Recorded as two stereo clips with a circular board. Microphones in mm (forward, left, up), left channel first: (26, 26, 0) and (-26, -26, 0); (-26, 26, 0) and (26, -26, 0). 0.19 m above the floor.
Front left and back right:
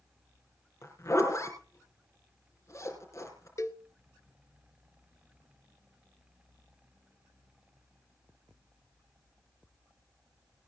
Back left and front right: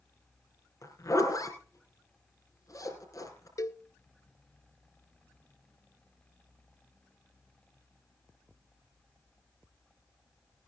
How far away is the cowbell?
About 0.7 m.